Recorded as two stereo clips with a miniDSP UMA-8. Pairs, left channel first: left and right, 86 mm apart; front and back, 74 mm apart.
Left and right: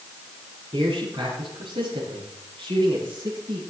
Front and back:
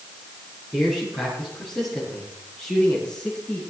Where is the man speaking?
95° right, 8 m; by 3.6 s 85° right, 7.5 m.